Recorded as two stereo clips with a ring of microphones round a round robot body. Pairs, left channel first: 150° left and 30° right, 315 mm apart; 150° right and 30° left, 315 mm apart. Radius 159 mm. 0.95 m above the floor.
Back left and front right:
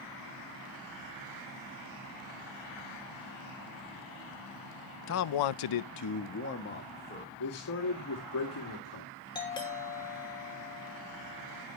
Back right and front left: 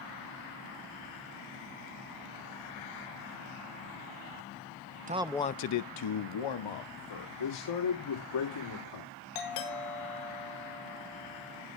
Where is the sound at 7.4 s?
170° right, 2.5 m.